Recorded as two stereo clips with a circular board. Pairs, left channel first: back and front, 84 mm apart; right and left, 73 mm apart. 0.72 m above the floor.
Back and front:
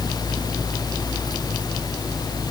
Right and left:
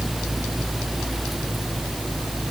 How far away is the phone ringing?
No phone ringing in this recording.